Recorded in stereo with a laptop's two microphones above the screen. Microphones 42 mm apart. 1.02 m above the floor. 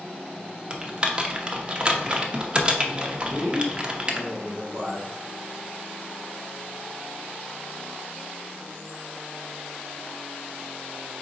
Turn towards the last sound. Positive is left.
turn(degrees=-50)  # may be behind; listen again after turning